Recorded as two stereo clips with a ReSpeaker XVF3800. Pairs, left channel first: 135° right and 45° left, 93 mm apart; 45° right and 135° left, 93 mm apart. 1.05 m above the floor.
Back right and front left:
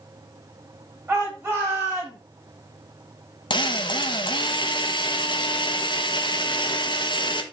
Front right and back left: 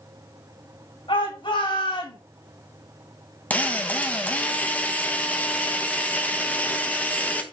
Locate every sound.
1.1 s a shout: 30° right, 6.5 m
3.5 s a drill: 115° right, 1.4 m